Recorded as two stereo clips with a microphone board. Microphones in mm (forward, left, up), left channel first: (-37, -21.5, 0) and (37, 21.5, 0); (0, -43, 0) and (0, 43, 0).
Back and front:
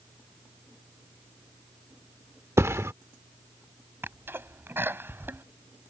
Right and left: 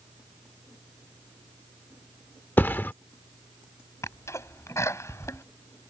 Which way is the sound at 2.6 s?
25° right.